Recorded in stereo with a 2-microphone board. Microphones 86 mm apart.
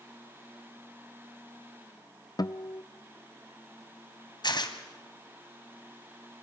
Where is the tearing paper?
60° left (ahead or behind), 1.6 m.